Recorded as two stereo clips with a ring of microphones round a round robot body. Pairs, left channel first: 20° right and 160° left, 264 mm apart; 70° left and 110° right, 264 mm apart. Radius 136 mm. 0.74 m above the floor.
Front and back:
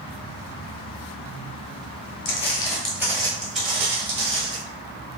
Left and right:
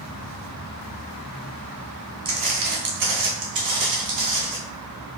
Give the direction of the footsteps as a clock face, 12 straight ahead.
2 o'clock.